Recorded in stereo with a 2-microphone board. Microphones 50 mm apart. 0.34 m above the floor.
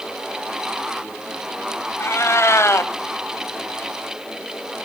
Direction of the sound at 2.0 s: 60° left (ahead or behind).